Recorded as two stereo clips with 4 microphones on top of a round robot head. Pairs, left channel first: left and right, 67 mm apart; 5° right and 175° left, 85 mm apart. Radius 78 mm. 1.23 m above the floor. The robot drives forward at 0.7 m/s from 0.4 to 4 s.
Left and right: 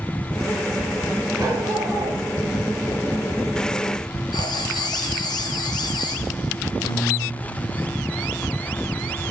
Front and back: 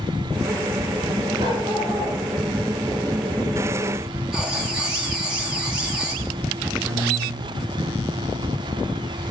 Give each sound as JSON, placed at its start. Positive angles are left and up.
{"t": 1.4, "sound": "a dog barking", "azimuth_deg": -135, "distance_m": 9.0}
{"t": 4.3, "sound": "writing", "azimuth_deg": 95, "distance_m": 3.5}
{"t": 6.8, "sound": "a guitar", "azimuth_deg": 110, "distance_m": 3.5}